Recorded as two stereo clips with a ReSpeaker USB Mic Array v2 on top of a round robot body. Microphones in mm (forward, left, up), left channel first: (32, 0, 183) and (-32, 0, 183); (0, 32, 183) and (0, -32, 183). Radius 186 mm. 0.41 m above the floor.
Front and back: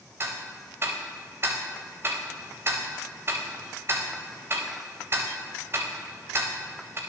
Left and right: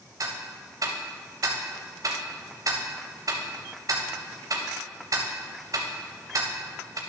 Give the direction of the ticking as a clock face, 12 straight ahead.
4 o'clock.